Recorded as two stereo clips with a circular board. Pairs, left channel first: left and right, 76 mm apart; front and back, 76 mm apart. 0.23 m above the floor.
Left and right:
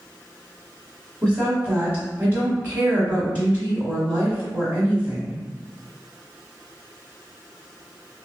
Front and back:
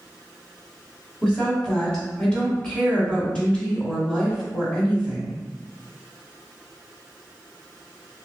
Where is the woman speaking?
55° right, 1.0 m.